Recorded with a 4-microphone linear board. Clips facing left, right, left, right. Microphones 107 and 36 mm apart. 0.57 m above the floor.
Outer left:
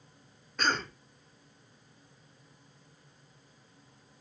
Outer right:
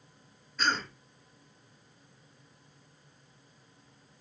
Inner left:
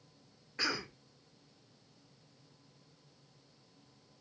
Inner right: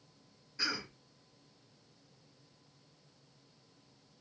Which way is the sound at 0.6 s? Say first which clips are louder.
Even, inner left 2 dB; 55° left (ahead or behind).